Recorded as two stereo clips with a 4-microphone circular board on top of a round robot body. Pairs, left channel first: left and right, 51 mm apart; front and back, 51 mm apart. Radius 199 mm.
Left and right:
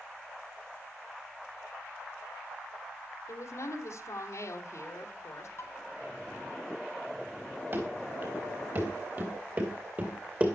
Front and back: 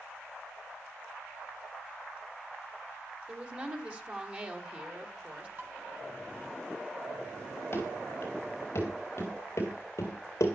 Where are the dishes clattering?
130° left, 3.5 m.